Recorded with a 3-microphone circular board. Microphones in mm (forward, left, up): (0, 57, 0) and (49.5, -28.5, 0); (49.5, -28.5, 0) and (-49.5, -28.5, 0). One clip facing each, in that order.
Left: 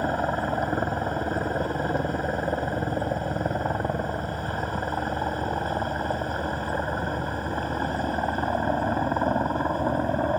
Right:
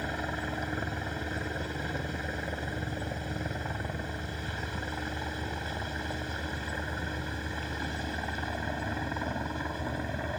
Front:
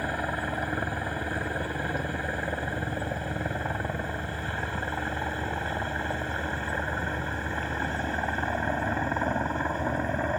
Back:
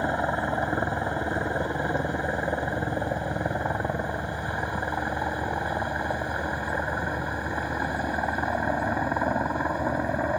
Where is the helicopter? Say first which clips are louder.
Left 9 dB, back 5 dB; 125° left; by 10.4 s 105° left.